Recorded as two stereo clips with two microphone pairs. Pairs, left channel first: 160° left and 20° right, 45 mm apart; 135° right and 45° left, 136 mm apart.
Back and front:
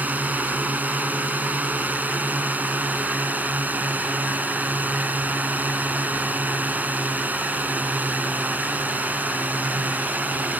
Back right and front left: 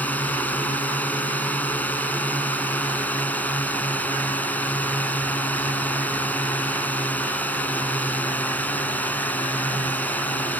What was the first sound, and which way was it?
A drone, 60° right.